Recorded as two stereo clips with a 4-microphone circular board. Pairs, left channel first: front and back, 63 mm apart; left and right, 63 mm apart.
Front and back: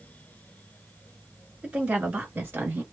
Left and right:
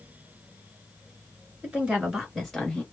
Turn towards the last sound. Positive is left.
turn(degrees=160)